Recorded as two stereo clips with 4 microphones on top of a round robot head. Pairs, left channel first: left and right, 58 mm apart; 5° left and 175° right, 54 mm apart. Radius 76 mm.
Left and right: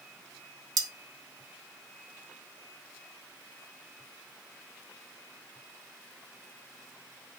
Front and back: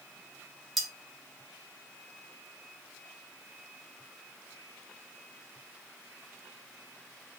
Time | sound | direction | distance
0.8 | cutlery clinking | 85° right | 0.7 m